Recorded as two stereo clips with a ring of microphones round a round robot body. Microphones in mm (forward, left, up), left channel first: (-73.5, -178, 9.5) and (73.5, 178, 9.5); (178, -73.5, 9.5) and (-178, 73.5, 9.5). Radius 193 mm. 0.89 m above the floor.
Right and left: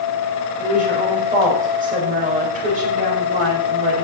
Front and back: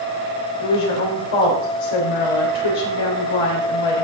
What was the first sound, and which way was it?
A woman speaking, 5° right.